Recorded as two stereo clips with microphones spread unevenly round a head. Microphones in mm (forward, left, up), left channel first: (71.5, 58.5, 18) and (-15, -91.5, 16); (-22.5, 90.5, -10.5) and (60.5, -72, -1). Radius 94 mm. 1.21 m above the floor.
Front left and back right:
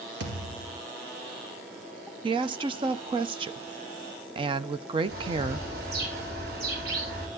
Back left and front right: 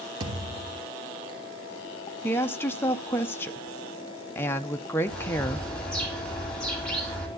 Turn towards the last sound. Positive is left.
turn(degrees=-160)